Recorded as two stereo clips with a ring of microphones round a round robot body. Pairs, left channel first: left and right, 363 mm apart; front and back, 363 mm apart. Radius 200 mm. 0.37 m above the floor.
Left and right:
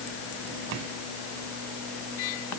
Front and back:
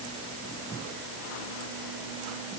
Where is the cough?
No cough in this recording.